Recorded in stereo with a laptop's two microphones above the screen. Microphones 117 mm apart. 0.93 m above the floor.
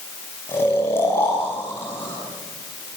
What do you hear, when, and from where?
0.5 s snoring: 20° left (ahead or behind), 6 m